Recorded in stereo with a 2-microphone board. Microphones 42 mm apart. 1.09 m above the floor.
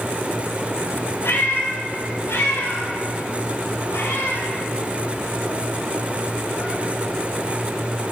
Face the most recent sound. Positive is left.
turn(degrees=65)  # may be behind; listen again after turning